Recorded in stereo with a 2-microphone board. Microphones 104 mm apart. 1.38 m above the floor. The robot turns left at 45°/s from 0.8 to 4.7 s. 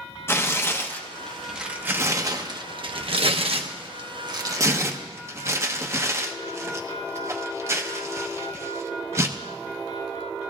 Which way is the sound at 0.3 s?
25° left (ahead or behind).